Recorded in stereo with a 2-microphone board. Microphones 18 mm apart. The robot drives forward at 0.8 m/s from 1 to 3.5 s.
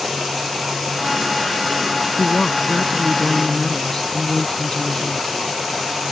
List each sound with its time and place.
2.2 s a woman speaking: 30° left (ahead or behind); by 5.2 s 40° left (ahead or behind)